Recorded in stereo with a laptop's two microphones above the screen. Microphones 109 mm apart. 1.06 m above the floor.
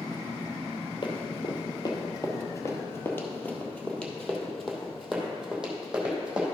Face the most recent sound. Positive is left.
turn(degrees=-10)  # may be behind; listen again after turning